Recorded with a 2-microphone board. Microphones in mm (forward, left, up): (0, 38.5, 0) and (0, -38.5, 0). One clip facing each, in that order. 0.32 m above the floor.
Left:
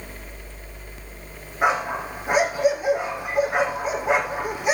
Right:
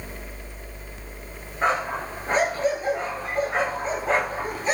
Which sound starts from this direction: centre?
A dog barking, at 1.6 s.